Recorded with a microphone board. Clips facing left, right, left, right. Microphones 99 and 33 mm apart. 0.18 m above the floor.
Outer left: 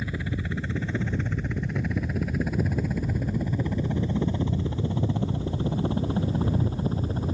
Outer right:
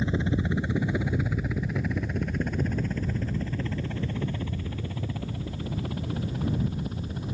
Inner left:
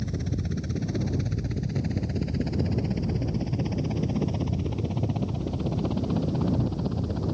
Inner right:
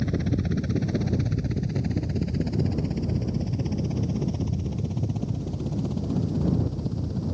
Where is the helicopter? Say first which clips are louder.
Outer right 5 dB, inner right 5 dB; 25° right (ahead or behind); by 7.3 s 35° left (ahead or behind).